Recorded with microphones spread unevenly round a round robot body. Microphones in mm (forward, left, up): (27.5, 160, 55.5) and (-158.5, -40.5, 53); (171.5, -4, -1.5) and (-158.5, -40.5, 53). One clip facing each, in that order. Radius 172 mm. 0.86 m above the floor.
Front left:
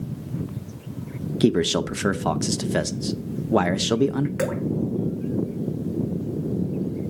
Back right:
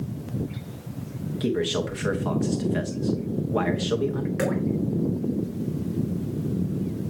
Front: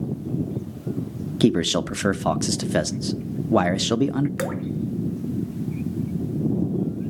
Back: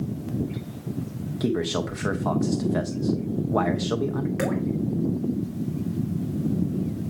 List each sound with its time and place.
1.4 s a man speaking: 20° left, 0.6 m
4.4 s dripping: 35° right, 1.6 m